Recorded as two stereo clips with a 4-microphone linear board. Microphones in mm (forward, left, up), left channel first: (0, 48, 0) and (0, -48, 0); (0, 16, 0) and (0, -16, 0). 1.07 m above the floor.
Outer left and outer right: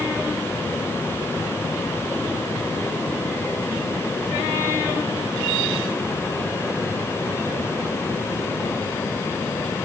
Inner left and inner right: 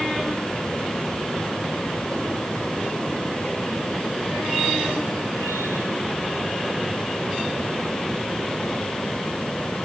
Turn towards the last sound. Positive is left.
No sound to turn to.